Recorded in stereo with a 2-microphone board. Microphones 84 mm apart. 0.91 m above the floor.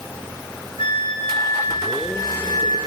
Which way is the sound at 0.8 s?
80° left.